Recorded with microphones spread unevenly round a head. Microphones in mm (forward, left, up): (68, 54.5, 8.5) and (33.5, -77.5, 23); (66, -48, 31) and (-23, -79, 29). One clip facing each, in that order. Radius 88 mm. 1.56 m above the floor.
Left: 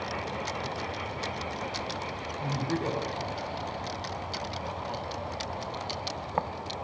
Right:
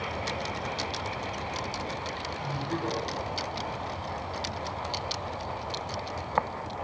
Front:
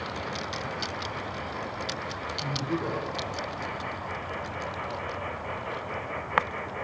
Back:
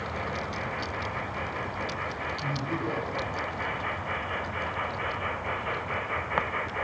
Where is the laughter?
115° left, 2 m.